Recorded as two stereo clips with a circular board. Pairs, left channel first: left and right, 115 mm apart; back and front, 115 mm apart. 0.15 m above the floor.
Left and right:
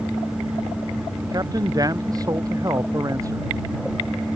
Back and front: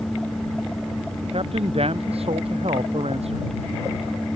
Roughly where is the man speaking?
Ahead right.